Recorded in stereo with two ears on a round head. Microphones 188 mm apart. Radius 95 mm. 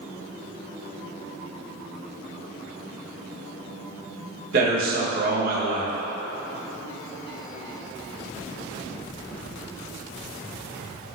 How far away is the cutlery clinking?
No cutlery clinking in this recording.